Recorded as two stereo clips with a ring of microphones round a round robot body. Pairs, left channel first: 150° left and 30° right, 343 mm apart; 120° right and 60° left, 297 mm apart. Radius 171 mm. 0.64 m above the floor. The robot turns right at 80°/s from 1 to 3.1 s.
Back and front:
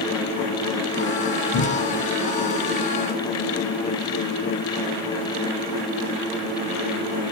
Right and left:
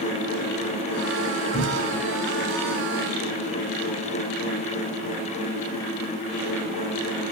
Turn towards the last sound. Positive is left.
turn(degrees=-70)